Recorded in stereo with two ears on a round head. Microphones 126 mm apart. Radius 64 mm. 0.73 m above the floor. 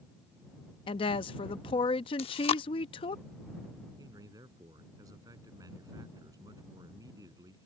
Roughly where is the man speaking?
Right.